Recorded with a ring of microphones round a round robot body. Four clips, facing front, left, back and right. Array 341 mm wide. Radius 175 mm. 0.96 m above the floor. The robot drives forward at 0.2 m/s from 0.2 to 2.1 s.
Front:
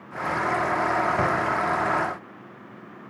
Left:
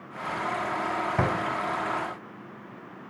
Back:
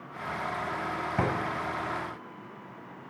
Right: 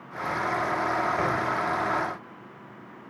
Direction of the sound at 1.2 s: 120° left.